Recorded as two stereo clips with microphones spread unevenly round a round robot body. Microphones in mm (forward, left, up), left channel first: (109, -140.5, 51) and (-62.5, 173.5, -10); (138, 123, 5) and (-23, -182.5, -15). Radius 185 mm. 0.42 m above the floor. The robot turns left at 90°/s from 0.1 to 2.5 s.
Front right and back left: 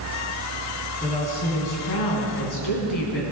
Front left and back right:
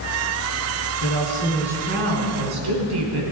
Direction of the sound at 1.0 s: 30° left.